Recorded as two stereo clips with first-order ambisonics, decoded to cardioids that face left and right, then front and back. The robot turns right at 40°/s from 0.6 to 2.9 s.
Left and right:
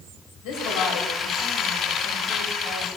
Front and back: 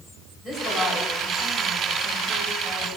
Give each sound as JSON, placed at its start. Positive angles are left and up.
{"t": 0.4, "sound": "a woman speaking", "azimuth_deg": 100, "distance_m": 3.0}